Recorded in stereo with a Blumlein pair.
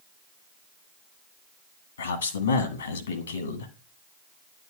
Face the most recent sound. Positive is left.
turn(degrees=70)